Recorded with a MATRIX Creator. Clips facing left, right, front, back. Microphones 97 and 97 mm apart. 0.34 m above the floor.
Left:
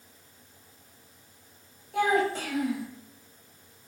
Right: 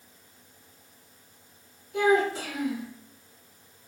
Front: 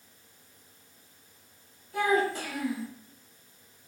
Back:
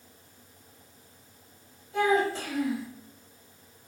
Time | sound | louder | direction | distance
1.9 | a child speaking | right 2 dB, back 1 dB | 120° left | 1.3 m